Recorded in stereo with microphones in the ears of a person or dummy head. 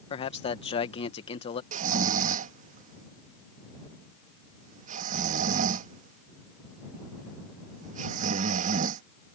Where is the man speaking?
35° left (ahead or behind).